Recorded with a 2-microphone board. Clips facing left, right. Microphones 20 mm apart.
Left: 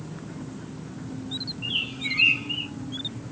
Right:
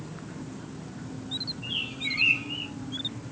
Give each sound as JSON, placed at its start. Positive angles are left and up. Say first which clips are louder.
{"t": 1.6, "sound": "a bird", "louder": "left 6 dB", "side_deg": 45, "distance_m": 0.9}